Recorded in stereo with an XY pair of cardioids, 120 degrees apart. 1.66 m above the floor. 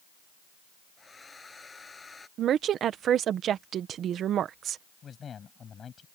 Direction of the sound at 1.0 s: 20° left.